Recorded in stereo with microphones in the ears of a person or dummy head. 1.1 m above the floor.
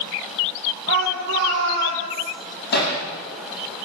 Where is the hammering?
60° left (ahead or behind), 9.5 m.